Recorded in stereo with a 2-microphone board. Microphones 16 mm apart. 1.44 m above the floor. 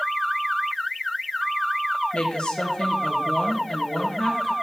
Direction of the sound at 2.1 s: 75° left (ahead or behind).